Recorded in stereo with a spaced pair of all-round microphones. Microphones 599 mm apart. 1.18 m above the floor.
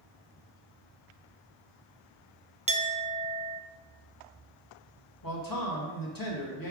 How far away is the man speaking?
About 1.7 m.